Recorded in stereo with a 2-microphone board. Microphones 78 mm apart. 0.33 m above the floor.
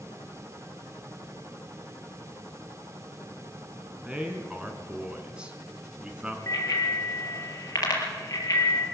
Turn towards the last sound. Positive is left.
turn(degrees=45)  # may be behind; listen again after turning